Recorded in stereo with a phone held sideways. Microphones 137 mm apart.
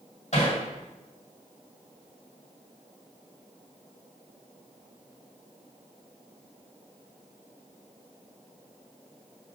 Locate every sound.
0.3 s hammering: 55° left (ahead or behind), 2 m